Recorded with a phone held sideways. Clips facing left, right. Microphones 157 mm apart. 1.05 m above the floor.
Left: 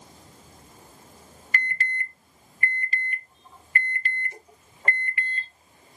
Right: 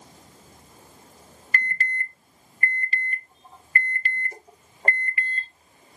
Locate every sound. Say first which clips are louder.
1.5 s an alarm: right 1 dB; 40° right (ahead or behind), 0.6 m